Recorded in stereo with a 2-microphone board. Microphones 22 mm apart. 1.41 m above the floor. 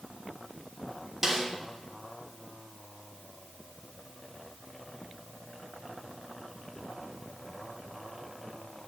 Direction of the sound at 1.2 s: 5° right (ahead or behind).